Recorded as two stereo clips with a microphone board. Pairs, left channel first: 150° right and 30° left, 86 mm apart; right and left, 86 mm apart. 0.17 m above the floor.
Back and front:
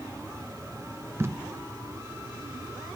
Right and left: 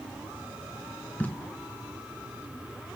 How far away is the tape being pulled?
About 1.5 m.